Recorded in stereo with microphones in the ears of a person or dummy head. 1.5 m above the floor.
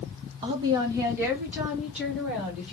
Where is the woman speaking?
25° right (ahead or behind), 0.9 m; by 2.7 s centre (ahead or behind), 1.9 m.